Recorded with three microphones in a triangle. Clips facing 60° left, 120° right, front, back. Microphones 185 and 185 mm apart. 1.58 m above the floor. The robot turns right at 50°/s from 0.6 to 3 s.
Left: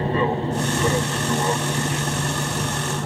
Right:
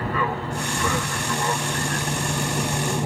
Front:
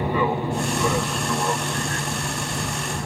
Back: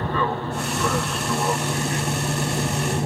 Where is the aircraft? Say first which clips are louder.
Left 5 dB, front 2 dB; 60° left; by 3.1 s straight behind.